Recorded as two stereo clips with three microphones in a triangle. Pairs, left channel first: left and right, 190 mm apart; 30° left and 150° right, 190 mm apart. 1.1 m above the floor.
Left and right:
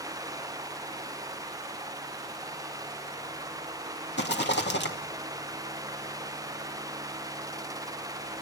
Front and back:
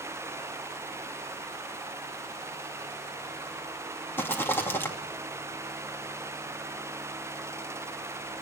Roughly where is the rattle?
Left.